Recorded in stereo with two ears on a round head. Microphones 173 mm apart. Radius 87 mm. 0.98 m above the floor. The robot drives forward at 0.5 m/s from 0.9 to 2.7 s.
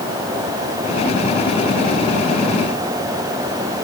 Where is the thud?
I don't hear a thud.